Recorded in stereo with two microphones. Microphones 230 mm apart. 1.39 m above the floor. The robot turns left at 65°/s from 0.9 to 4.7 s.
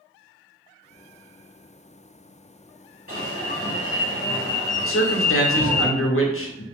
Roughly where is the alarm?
Left.